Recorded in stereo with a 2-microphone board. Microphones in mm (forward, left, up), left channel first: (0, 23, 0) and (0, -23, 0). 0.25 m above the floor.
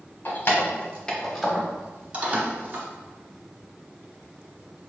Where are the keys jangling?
45° left (ahead or behind), 1.1 m; by 2.9 s 40° right (ahead or behind), 1.4 m.